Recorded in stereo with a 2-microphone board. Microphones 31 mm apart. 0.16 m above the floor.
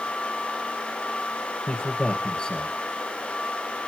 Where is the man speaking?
25° left (ahead or behind), 3.5 m.